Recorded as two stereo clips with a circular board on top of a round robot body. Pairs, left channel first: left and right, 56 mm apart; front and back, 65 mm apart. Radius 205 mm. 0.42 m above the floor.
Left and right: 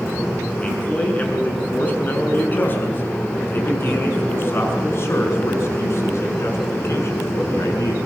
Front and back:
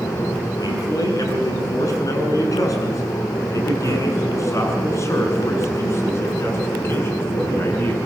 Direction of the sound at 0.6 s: 25° left.